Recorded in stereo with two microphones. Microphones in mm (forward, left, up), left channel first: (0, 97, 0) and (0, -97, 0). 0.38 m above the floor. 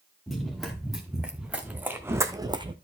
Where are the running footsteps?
Centre (ahead or behind), 2.5 m; by 2.7 s 30° right (ahead or behind), 0.9 m.